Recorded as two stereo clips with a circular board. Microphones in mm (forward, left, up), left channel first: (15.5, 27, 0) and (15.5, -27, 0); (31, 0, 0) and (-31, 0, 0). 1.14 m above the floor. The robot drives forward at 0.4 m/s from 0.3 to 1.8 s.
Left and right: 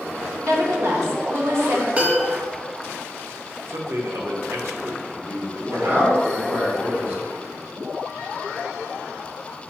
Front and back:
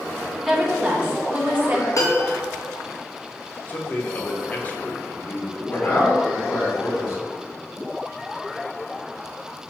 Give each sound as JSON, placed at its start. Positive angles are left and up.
{"t": 0.4, "sound": "a woman speaking", "azimuth_deg": -100, "distance_m": 1.0}
{"t": 2.0, "sound": "a piano", "azimuth_deg": -25, "distance_m": 0.9}
{"t": 3.7, "sound": "a man speaking", "azimuth_deg": -60, "distance_m": 0.8}
{"t": 5.7, "sound": "a man speaking", "azimuth_deg": -40, "distance_m": 2.0}